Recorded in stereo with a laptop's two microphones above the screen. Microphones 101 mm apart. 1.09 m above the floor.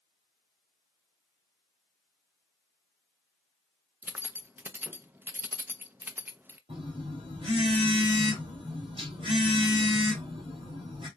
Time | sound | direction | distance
4.0 | keys jangling | 20° right (ahead or behind) | 0.6 m
6.7 | a phone buzzing | 70° right (ahead or behind) | 3 m